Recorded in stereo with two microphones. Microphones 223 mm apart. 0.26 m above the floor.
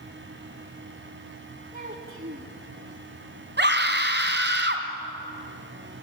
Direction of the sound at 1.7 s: 45° right (ahead or behind).